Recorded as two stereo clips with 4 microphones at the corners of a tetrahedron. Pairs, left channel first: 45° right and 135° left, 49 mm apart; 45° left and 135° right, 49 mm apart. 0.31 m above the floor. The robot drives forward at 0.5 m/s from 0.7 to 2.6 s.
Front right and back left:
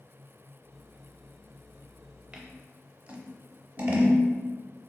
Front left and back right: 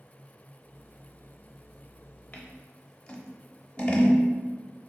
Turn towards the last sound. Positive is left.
turn(degrees=100)